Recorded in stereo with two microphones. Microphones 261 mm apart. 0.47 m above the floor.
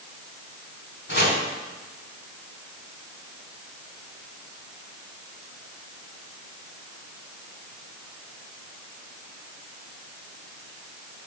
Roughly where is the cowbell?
I don't hear a cowbell.